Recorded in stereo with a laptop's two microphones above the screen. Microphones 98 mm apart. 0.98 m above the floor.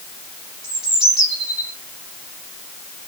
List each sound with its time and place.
0.6 s a bird: 10° right (ahead or behind), 3 m